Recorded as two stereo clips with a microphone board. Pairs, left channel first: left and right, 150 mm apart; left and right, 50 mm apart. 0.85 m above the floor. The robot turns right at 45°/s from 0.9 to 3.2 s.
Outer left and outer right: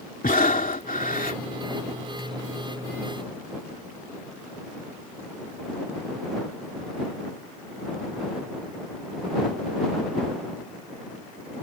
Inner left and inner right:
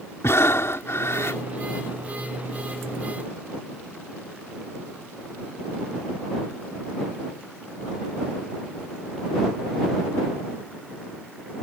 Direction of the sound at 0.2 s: 70° left (ahead or behind).